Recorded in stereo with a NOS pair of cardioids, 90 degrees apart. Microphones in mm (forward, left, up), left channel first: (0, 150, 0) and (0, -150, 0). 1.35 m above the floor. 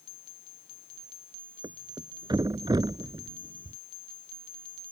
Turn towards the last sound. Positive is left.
turn(degrees=-15)